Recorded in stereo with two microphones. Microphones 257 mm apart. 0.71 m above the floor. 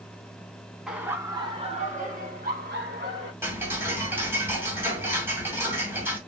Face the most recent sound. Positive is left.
turn(degrees=-10)  # may be behind; listen again after turning